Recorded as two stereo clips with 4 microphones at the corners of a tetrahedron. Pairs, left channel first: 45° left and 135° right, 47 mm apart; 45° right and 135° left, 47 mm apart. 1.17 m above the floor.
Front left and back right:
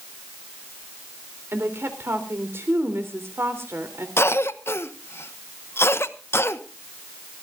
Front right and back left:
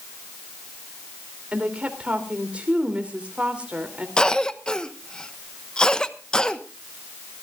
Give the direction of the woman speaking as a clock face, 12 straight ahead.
5 o'clock.